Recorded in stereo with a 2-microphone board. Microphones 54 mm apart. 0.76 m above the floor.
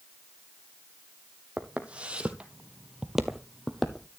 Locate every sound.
1.6 s footsteps: 25° right (ahead or behind), 1.4 m; by 4.1 s 5° left (ahead or behind), 1.2 m